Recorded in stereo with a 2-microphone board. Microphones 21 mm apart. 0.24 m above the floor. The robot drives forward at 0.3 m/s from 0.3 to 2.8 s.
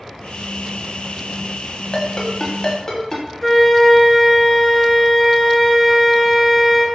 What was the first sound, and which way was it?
A ringtone, 40° left (ahead or behind).